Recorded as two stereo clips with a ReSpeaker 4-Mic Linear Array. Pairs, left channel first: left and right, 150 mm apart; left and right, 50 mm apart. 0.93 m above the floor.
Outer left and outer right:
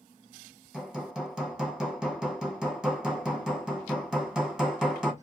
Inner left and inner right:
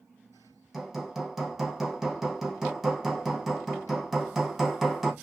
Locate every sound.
0.7 s hammering: 5° right (ahead or behind), 0.8 m